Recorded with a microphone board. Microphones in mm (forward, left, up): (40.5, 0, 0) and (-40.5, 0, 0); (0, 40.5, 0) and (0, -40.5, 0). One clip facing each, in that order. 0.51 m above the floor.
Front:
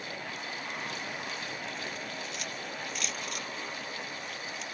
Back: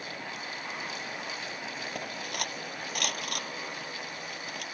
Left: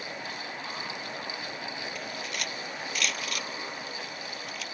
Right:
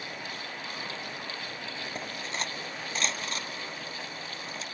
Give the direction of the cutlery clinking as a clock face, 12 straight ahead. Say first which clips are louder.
Back 3 dB, right 1 dB; 5 o'clock.